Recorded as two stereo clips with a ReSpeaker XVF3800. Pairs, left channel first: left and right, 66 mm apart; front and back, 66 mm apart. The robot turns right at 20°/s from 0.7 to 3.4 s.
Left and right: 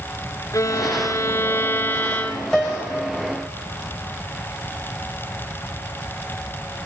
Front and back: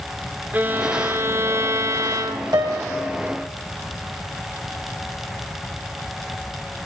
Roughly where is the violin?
Behind left.